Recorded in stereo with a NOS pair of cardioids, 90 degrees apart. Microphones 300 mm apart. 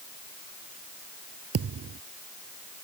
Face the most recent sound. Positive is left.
turn(degrees=-50)